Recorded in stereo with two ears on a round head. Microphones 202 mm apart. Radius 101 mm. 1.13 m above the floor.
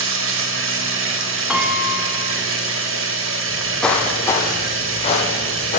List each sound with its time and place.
0.0 s running water: 60° right (ahead or behind), 1.5 m
1.5 s a piano: 5° right (ahead or behind), 1.0 m
3.5 s footsteps: 5° right (ahead or behind), 1.7 m; by 5.8 s 40° left (ahead or behind), 2 m